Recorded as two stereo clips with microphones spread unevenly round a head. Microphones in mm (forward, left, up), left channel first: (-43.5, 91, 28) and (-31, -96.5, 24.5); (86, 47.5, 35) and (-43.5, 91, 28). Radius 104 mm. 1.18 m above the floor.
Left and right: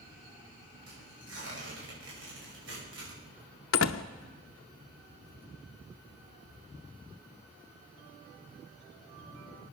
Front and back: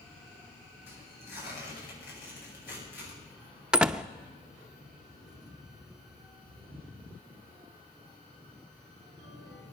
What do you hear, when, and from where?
0.9 s tearing paper: 50° right, 6 m
3.7 s a door slam: 75° left, 0.7 m